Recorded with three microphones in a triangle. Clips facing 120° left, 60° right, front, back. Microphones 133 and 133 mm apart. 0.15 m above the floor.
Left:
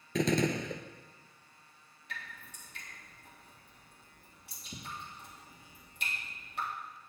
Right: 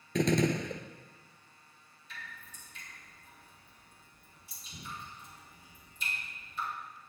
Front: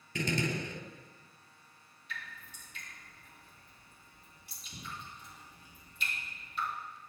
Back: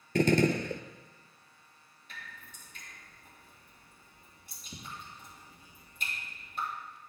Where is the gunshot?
150° right, 0.5 m.